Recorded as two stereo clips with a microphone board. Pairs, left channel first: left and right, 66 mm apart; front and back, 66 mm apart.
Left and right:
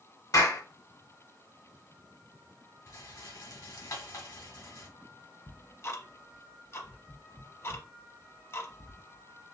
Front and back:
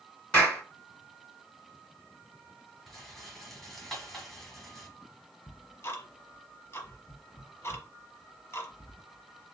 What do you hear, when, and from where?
0.3 s a clap: 70° left, 2.5 m
2.9 s a rattle: 90° left, 1.5 m
5.5 s ticking: 45° left, 0.9 m